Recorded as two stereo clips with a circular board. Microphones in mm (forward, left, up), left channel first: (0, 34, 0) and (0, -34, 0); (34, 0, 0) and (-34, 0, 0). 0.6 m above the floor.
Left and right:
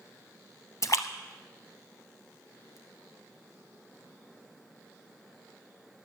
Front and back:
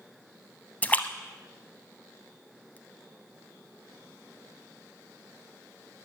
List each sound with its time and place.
0.8 s a splash: 65° left, 0.8 m